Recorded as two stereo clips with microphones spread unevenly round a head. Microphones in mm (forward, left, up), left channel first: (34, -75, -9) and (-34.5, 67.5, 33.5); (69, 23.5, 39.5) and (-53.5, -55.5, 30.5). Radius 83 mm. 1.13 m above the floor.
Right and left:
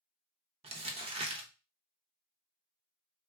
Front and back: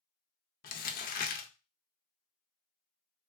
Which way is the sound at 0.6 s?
55° left.